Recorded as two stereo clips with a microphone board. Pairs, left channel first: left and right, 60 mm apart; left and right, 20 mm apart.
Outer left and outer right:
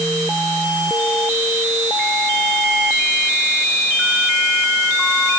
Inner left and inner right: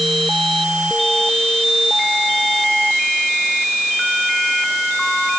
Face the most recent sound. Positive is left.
No sound to turn to.